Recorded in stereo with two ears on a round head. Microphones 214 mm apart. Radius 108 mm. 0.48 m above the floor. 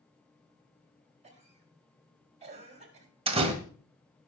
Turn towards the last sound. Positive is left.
turn(degrees=-30)  # may be behind; listen again after turning